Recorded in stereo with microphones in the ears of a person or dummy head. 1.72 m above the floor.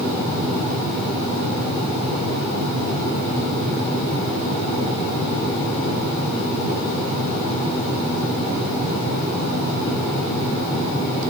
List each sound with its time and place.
Only background noise.